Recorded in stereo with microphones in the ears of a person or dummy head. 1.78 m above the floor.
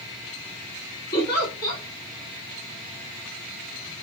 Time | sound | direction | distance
1.1 | a giggle | 20° left (ahead or behind) | 2.5 m